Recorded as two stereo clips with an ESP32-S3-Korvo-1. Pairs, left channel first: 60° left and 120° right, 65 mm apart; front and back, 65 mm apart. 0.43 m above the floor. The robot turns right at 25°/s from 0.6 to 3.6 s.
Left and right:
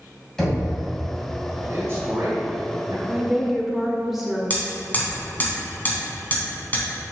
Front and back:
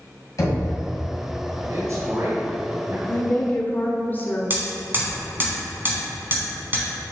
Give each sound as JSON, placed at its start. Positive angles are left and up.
{"t": 0.4, "sound": "knocking", "azimuth_deg": -25, "distance_m": 2.5}
{"t": 1.7, "sound": "a man speaking", "azimuth_deg": -165, "distance_m": 1.5}
{"t": 3.1, "sound": "a woman speaking", "azimuth_deg": -50, "distance_m": 1.2}
{"t": 4.5, "sound": "hammering", "azimuth_deg": 120, "distance_m": 2.0}